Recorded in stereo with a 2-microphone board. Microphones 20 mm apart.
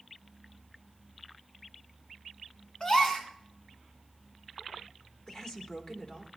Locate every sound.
2.8 s a gasp: 35° left (ahead or behind), 3 m
5.3 s a woman speaking: 40° left (ahead or behind), 2.5 m